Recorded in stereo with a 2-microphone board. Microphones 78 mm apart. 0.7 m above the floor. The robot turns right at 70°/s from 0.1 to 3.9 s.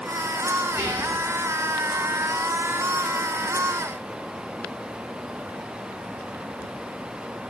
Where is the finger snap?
No finger snap in this recording.